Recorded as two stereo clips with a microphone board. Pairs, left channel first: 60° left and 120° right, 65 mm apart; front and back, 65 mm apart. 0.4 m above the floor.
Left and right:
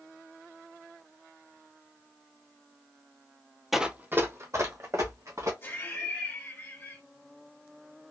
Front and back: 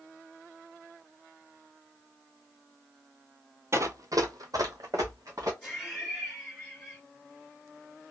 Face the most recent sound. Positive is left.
turn(degrees=70)